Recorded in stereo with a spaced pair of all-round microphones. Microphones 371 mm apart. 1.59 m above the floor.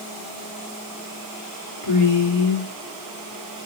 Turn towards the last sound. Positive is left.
turn(degrees=70)  # may be behind; listen again after turning